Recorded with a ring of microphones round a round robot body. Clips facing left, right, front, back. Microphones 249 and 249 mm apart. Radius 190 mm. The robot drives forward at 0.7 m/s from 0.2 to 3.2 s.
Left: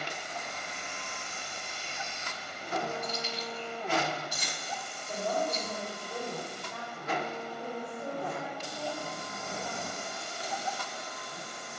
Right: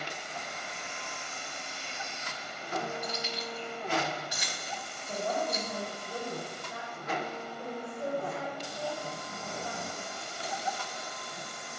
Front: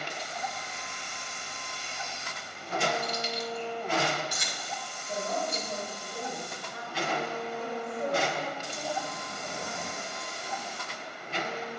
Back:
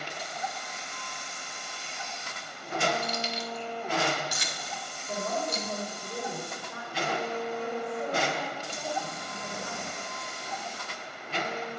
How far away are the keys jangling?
About 0.9 m.